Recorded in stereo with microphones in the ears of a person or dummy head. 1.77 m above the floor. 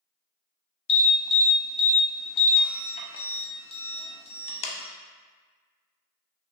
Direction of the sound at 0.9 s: 35° left (ahead or behind).